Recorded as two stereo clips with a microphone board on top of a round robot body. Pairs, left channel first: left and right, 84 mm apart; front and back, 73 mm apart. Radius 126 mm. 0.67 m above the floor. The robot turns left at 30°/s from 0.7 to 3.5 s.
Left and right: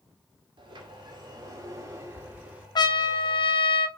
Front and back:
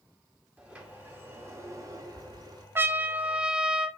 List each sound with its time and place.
0.6 s a sliding door: 105° right, 2.5 m; by 2.6 s 165° right, 2.5 m
2.8 s a trumpet: 120° left, 1.0 m; by 3.9 s 100° left, 1.0 m